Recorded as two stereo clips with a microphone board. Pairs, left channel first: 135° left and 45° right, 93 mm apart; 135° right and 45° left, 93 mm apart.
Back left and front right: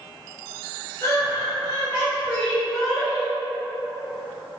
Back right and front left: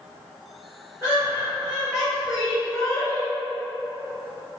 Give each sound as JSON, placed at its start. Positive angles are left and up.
{"t": 1.0, "sound": "laughter", "azimuth_deg": 105, "distance_m": 1.9}